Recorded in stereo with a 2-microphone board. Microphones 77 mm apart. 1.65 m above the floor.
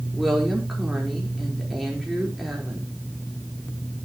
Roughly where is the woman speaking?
Centre.